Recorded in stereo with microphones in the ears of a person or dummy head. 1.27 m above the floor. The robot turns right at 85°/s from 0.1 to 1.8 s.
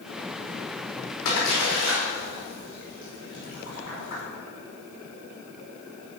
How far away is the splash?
About 5 m.